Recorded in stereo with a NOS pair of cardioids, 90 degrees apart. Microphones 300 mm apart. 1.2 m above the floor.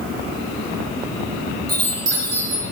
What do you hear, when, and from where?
1.7 s a chime: 40° right, 2.5 m